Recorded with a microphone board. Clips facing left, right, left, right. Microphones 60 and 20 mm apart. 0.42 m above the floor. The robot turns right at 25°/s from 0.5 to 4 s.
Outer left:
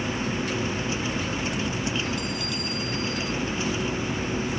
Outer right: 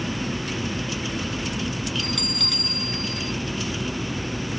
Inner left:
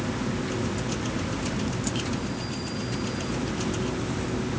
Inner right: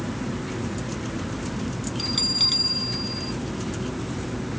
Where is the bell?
75° right; by 3.3 s 45° right.